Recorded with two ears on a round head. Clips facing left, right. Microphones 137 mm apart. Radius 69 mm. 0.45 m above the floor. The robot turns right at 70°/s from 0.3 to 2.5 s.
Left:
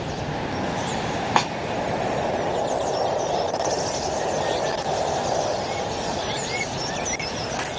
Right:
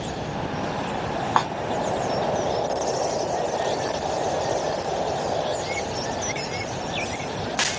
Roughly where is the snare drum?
Left.